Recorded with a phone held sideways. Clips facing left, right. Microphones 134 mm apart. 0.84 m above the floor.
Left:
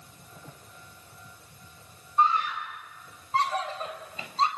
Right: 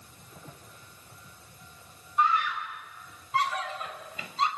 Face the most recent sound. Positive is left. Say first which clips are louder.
# left 1 dB
turn(degrees=30)  # may be behind; listen again after turning